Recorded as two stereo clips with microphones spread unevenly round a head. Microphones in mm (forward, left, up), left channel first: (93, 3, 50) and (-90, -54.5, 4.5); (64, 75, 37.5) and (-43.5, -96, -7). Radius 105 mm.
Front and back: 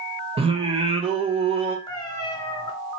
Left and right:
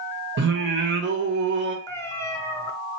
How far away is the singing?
About 0.8 m.